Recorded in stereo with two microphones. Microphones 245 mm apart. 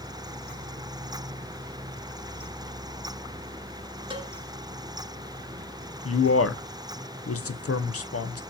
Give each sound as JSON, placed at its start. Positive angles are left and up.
{"t": 4.1, "sound": "a cowbell", "side_deg": -20, "distance_m": 1.0}
{"t": 6.0, "sound": "a man speaking", "side_deg": 65, "distance_m": 0.5}